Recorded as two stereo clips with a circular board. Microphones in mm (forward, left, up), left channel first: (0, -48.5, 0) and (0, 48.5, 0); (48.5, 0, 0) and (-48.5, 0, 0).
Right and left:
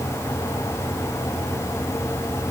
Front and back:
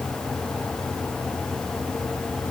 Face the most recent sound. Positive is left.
No sound to turn to.